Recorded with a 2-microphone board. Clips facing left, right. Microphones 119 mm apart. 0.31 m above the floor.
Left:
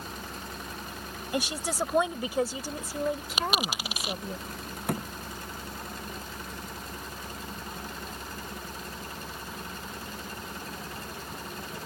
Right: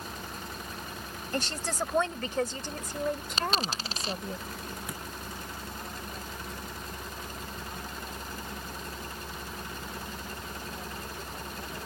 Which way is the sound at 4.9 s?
60° left (ahead or behind).